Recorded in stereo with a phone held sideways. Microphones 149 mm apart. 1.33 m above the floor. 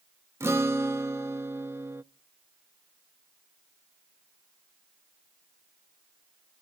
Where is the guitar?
15° right (ahead or behind), 0.7 m.